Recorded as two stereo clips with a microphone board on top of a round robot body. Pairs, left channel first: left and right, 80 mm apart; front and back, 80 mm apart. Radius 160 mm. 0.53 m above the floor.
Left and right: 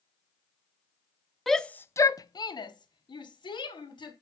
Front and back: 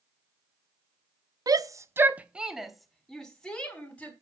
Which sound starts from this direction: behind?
A shout, at 1.5 s.